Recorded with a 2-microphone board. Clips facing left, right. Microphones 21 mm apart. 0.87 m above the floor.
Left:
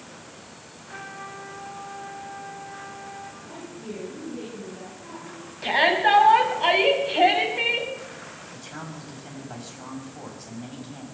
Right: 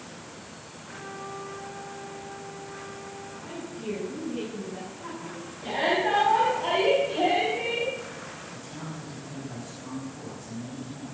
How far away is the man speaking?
About 5.5 m.